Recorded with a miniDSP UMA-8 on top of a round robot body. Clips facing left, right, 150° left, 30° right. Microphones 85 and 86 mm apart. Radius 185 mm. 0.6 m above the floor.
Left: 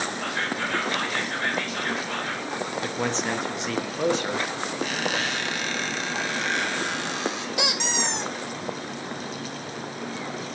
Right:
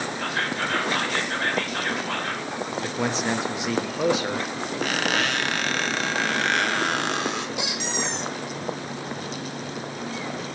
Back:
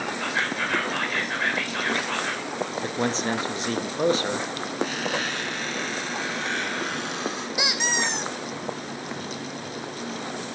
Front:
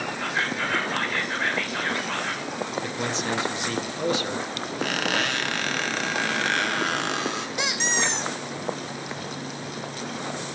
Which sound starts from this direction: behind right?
Whispering, at 0.2 s.